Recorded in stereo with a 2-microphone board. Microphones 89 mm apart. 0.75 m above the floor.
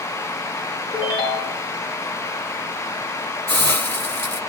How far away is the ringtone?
About 1.3 m.